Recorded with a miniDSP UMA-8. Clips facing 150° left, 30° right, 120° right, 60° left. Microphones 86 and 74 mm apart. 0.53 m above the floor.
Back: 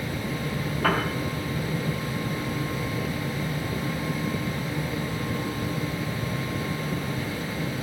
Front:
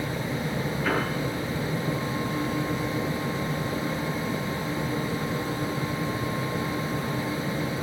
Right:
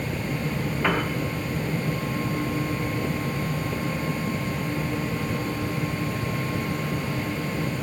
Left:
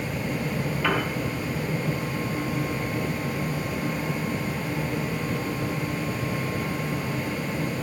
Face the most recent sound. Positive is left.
turn(degrees=170)